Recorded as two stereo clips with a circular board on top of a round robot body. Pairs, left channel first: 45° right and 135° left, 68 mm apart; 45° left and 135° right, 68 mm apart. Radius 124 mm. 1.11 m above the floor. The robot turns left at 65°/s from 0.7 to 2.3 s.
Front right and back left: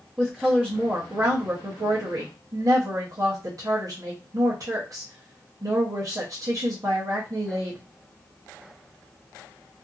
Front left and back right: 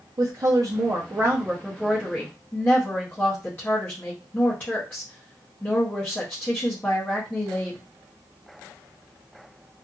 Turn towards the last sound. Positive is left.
turn(degrees=105)